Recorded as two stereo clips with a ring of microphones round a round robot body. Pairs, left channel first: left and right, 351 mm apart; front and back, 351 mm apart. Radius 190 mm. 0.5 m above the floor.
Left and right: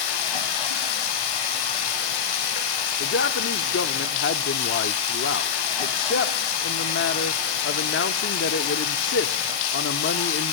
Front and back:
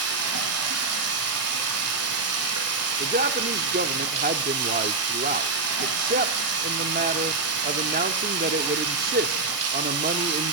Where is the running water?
125° left, 4 m.